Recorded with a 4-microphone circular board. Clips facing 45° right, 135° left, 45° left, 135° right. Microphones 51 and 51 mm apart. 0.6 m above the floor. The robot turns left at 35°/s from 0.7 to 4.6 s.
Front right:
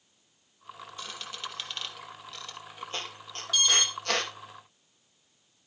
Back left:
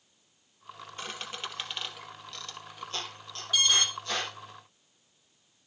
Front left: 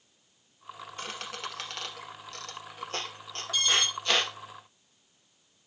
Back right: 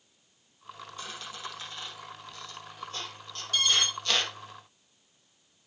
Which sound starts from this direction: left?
A squeak, at 1.0 s.